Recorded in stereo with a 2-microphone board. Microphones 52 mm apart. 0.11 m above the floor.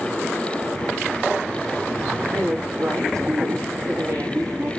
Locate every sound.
2.3 s a woman speaking: 70° right (ahead or behind), 4.5 m